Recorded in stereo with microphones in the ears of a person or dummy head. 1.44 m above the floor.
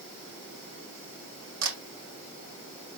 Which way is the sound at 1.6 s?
70° right (ahead or behind).